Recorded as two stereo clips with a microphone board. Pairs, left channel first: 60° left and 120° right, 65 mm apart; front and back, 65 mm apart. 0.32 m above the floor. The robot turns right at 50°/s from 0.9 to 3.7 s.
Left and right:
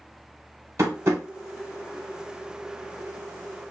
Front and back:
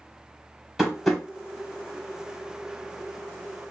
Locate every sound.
0.8 s tapping: 95° right, 1.2 m; by 1.2 s 80° right, 1.2 m